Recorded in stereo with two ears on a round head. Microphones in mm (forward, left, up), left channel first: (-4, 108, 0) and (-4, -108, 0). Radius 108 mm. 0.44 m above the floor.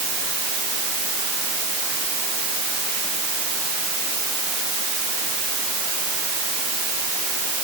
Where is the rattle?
No rattle in this recording.